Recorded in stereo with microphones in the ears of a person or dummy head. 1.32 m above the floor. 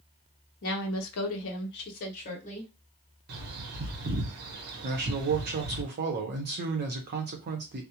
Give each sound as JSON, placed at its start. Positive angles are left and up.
{"t": 0.6, "sound": "a woman speaking", "side_deg": 55, "distance_m": 0.6}
{"t": 3.3, "sound": "a bird", "side_deg": -50, "distance_m": 0.9}
{"t": 4.8, "sound": "a man speaking", "side_deg": -45, "distance_m": 0.7}